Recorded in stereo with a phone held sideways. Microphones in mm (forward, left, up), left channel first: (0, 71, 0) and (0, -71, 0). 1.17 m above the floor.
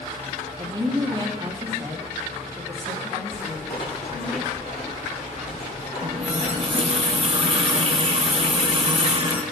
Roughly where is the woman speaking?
Right.